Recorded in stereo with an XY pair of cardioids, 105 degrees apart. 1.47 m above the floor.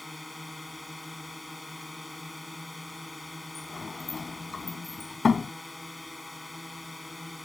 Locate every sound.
0.0 s a drone: 15° left
3.5 s a sliding door: 35° left